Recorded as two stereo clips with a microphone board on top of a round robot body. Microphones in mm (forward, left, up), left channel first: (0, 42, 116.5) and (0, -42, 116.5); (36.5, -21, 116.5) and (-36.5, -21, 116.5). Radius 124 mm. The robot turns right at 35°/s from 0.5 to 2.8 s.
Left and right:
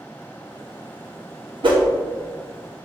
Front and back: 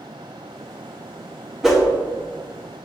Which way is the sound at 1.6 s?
95° right.